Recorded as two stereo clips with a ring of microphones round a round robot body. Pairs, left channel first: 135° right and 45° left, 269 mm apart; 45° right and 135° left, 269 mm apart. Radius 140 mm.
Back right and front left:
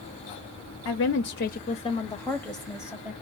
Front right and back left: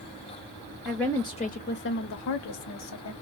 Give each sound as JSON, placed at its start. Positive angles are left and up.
{"t": 0.8, "sound": "a woman speaking", "azimuth_deg": -140, "distance_m": 0.9}